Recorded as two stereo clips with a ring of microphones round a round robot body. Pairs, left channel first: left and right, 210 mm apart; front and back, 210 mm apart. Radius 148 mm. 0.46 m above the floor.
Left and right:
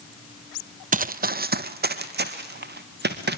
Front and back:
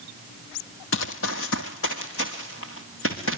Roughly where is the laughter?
No laughter in this recording.